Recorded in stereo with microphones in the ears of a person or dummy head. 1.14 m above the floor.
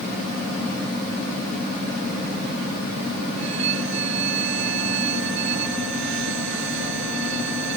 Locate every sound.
3.4 s a violin: 70° right (ahead or behind)